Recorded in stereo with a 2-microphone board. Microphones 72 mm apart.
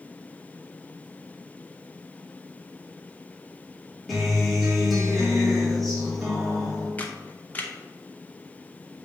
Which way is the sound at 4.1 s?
Centre (ahead or behind).